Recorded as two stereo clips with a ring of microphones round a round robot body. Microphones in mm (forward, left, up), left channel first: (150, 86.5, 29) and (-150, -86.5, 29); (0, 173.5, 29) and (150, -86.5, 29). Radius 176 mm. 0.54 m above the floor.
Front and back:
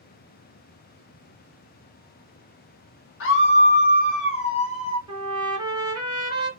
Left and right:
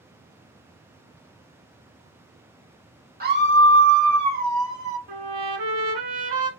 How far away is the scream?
About 1.2 m.